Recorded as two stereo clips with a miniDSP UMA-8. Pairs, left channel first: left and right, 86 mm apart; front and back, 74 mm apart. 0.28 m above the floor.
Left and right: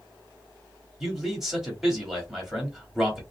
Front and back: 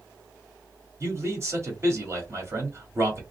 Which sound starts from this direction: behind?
A man speaking, at 1.0 s.